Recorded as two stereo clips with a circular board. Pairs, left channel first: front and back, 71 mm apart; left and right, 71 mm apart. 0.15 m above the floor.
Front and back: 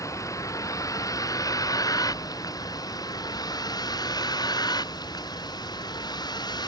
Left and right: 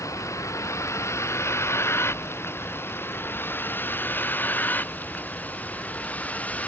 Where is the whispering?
I don't hear whispering.